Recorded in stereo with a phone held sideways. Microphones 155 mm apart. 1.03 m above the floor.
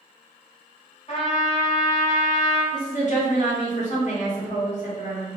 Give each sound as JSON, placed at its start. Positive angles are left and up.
{"t": 1.1, "sound": "a trumpet", "side_deg": 40, "distance_m": 1.5}
{"t": 2.7, "sound": "a woman speaking", "side_deg": 50, "distance_m": 1.4}